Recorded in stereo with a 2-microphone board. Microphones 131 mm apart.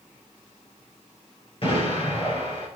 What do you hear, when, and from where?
1.6 s an explosion: 45° left (ahead or behind), 5.5 m